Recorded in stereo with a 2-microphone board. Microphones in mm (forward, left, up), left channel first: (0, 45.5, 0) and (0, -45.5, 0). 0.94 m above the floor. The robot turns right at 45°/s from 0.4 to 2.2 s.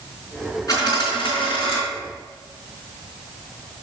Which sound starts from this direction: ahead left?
A dropped coin, at 0.7 s.